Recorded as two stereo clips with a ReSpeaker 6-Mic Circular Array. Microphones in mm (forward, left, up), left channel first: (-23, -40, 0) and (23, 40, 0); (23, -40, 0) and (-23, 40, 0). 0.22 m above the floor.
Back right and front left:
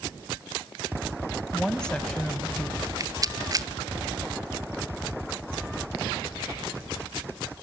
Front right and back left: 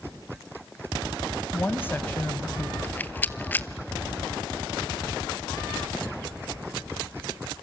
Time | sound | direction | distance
1.5 | a woman speaking | 50° right | 1.0 m
2.8 | a rattle | 10° left | 0.8 m